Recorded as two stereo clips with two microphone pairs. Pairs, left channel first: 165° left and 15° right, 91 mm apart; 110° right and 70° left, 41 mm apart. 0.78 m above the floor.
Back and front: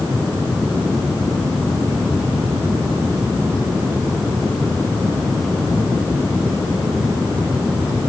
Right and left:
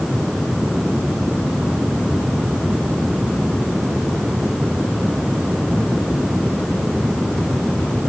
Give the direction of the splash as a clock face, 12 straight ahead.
I don't hear a splash.